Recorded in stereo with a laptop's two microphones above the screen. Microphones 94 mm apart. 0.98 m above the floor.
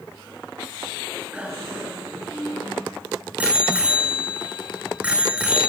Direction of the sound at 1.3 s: 15° right (ahead or behind).